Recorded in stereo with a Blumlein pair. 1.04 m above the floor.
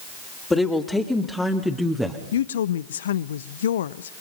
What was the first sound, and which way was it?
A woman speaking, 10° left.